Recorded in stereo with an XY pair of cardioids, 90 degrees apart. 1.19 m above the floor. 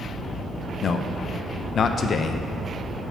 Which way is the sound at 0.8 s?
55° left.